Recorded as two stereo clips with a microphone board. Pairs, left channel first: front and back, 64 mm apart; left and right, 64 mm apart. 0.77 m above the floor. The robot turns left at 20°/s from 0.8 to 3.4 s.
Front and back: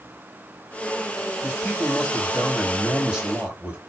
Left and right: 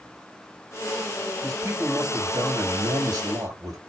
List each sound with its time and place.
1.4 s a man speaking: 70° right, 4.5 m; by 3.8 s 110° right, 4.5 m